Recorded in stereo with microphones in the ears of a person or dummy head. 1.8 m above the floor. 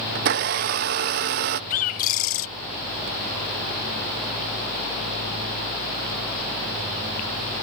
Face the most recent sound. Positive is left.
turn(degrees=40)  # may be behind; listen again after turning